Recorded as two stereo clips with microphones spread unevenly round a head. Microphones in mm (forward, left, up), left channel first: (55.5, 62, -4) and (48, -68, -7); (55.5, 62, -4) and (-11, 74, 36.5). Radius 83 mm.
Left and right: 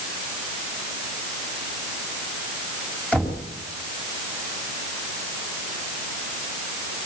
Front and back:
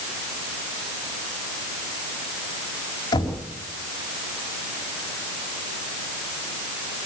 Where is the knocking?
5° left, 5 m.